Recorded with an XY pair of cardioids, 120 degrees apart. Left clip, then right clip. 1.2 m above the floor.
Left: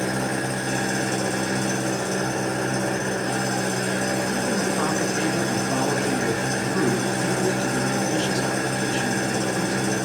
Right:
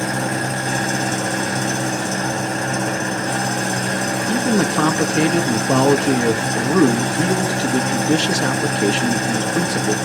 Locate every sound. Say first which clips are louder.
0.0 s an engine running: right 4 dB; 35° right, 3.5 m
4.3 s a man speaking: right 5 dB; 70° right, 2 m